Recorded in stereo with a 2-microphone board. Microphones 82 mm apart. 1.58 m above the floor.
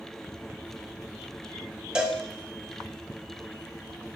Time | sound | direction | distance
1.9 | a cowbell | 10° right (ahead or behind) | 1.0 m